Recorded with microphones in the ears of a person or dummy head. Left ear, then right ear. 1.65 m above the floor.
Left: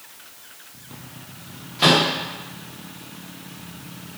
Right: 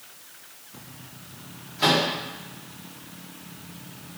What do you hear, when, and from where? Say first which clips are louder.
1.8 s a microwave: left 5 dB; 15° left (ahead or behind), 0.9 m